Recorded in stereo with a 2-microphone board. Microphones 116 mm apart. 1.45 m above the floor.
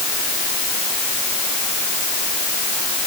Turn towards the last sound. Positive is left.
No sound to turn to.